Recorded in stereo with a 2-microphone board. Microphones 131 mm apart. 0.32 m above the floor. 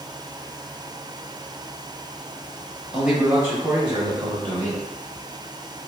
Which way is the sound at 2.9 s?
5° right (ahead or behind).